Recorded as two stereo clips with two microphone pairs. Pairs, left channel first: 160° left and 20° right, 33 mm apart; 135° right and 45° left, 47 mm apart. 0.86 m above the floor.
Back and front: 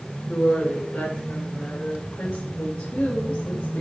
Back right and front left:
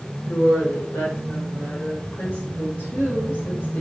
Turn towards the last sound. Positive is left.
turn(degrees=180)